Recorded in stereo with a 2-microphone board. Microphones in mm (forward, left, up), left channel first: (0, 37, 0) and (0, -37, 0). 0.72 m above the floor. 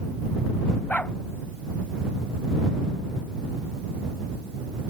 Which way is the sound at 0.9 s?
20° left (ahead or behind).